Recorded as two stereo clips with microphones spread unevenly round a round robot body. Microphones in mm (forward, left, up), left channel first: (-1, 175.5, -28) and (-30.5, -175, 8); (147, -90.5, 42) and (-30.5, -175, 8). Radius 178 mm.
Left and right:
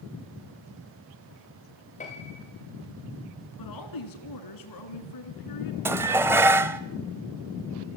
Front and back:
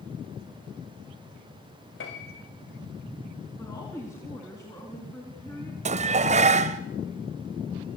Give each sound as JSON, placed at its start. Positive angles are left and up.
{"t": 2.0, "sound": "a piano", "azimuth_deg": 15, "distance_m": 5.0}
{"t": 3.6, "sound": "a woman speaking", "azimuth_deg": 110, "distance_m": 3.5}
{"t": 5.8, "sound": "dishes clattering", "azimuth_deg": 180, "distance_m": 0.7}